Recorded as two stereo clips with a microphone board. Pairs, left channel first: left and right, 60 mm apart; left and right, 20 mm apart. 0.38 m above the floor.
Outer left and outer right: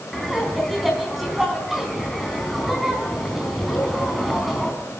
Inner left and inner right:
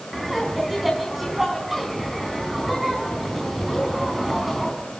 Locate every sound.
0.1 s laughter: 5° right (ahead or behind), 4 m